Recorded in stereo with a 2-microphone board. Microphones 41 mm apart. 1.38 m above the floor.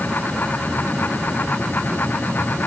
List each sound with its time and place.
Only background noise.